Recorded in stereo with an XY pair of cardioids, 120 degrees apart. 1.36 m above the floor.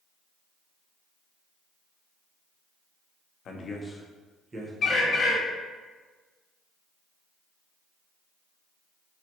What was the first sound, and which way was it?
A man speaking, 55° left.